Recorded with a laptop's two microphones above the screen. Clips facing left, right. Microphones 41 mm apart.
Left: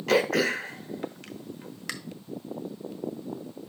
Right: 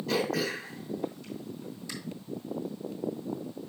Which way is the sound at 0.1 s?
65° left (ahead or behind).